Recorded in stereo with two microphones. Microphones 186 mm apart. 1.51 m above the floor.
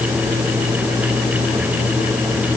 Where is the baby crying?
No baby crying in this recording.